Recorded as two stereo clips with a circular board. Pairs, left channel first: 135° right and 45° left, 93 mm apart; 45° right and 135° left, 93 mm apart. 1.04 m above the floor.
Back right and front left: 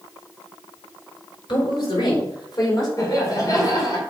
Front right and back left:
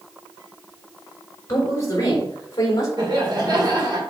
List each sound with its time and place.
1.5 s a woman speaking: 100° right, 4 m; by 2.9 s 95° right, 3.5 m
3.0 s laughter: 175° left, 3 m